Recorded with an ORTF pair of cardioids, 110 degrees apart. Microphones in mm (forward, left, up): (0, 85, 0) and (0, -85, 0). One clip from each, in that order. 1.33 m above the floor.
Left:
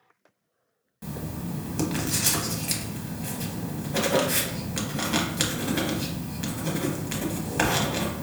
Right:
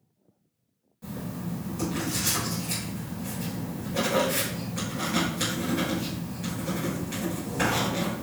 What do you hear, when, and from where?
1.0 s writing: 60° left, 1.2 m